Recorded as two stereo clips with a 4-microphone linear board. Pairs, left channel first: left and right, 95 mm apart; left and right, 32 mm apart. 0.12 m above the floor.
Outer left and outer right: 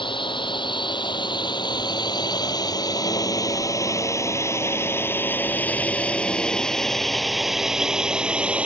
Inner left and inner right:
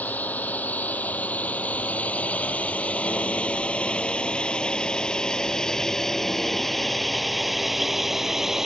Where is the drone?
60° left (ahead or behind); by 8.7 s 15° right (ahead or behind).